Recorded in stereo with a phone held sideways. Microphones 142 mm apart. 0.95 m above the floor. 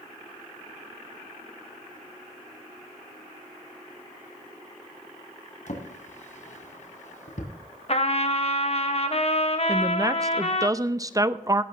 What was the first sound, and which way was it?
A drawer, 60° left (ahead or behind).